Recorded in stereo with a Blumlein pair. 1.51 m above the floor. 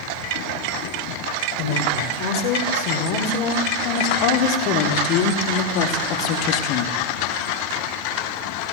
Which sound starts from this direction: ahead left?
A woman speaking, at 1.6 s.